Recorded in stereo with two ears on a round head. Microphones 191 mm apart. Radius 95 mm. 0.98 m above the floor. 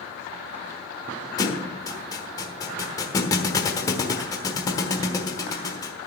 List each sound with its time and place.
1.4 s a thud: 15° left (ahead or behind), 1.2 m